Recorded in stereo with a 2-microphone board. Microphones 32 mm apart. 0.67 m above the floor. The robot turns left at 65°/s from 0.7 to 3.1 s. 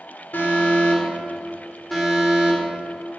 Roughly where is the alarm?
Left.